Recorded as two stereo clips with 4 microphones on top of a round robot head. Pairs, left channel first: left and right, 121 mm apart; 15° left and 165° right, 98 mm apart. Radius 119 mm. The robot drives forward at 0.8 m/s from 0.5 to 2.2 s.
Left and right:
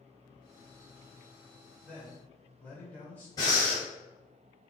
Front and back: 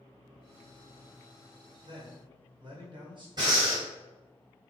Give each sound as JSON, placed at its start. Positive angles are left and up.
{"t": 1.8, "sound": "a man speaking", "azimuth_deg": 165, "distance_m": 2.0}
{"t": 3.4, "sound": "breathing", "azimuth_deg": 150, "distance_m": 2.0}